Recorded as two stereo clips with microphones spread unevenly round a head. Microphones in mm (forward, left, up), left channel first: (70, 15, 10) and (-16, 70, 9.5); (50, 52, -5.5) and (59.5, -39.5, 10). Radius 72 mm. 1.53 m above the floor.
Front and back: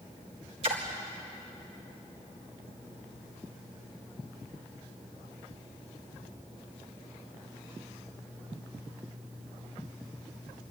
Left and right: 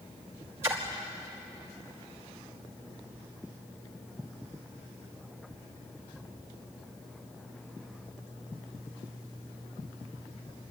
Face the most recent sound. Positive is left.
turn(degrees=-160)